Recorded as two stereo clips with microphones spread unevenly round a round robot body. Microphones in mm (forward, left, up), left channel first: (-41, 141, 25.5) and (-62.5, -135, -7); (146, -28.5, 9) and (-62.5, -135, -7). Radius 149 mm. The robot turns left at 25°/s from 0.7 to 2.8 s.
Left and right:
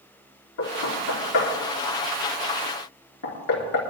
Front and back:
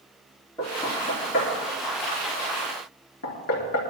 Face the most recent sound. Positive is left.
turn(degrees=55)